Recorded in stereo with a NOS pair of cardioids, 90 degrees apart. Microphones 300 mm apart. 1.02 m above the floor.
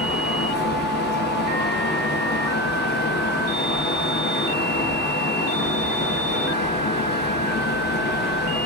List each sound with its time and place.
0.0 s a fan: 35° left, 0.7 m